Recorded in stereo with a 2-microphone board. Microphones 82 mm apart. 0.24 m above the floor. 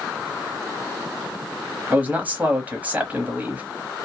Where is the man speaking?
20° right (ahead or behind), 1.0 m.